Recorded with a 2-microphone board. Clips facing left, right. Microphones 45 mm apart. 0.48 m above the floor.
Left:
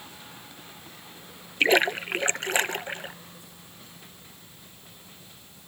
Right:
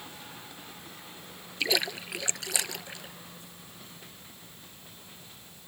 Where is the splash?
40° left (ahead or behind).